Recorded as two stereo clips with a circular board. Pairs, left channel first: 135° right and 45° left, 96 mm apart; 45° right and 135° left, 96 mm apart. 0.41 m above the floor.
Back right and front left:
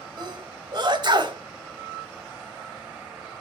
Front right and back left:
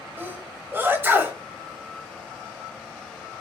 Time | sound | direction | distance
0.2 | a sneeze | 70° left | 1.8 m